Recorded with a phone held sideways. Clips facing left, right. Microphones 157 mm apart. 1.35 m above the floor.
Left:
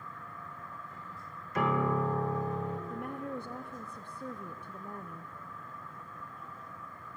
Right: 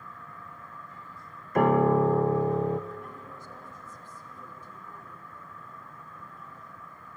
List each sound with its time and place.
1.6 s a piano: 50° right (ahead or behind), 0.7 m
2.9 s a woman speaking: 65° left (ahead or behind), 0.7 m